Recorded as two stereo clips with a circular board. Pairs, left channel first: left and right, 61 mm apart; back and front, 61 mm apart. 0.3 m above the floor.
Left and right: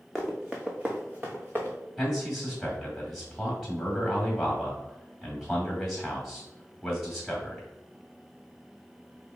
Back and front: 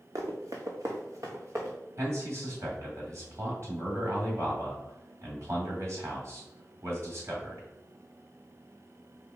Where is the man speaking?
5° right, 2 m.